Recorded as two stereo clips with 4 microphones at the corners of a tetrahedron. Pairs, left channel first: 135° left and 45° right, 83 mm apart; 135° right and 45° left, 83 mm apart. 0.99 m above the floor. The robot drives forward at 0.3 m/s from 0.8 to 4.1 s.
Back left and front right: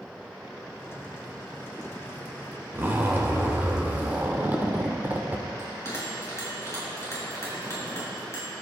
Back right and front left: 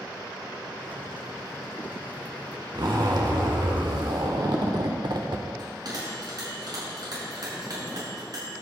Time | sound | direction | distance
2.8 | a zipper | 20° left | 1.9 m
5.6 | a bell | 80° left | 6 m